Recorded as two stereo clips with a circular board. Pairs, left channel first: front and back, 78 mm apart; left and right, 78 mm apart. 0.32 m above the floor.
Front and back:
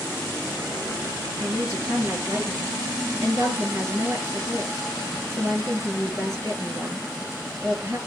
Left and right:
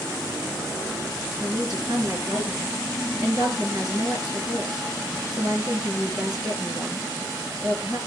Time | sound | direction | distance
1.4 | a woman speaking | 125° right | 5 m